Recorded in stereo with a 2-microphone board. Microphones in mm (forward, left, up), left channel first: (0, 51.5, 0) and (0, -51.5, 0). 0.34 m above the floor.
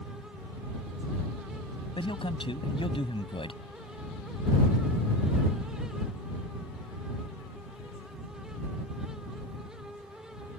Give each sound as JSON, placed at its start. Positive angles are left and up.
{"t": 2.0, "sound": "a man speaking", "side_deg": 65}